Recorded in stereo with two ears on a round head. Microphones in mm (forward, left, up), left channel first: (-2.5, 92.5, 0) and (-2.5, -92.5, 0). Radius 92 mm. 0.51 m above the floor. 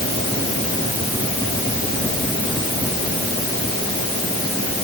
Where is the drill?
No drill in this recording.